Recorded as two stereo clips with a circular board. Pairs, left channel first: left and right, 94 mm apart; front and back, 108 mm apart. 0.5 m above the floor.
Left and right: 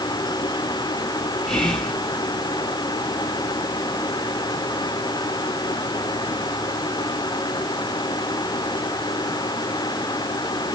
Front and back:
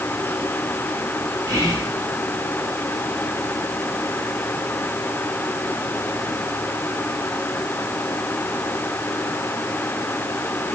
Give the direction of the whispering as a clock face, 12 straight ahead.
6 o'clock.